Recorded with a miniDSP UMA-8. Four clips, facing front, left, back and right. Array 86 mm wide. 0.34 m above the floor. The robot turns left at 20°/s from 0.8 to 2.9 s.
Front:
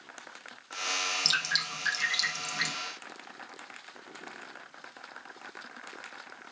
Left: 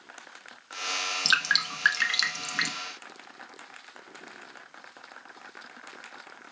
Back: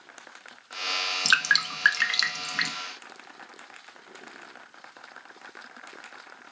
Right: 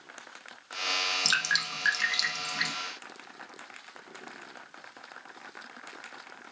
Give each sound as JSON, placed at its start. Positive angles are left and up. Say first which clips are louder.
{"t": 1.2, "sound": "dripping", "louder": "left 5 dB, back 14 dB", "azimuth_deg": 165, "distance_m": 0.8}